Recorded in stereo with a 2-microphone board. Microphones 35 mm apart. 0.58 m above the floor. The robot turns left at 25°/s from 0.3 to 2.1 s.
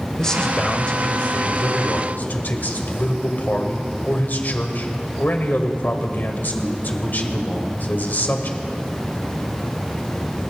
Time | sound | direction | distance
0.2 | a man speaking | 155° left | 2.0 m